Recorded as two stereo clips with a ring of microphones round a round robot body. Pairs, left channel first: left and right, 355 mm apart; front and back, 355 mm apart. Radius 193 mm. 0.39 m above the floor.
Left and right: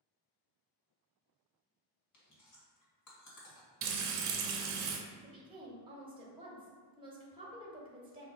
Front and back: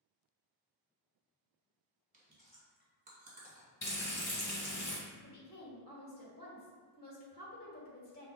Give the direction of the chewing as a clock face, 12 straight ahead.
8 o'clock.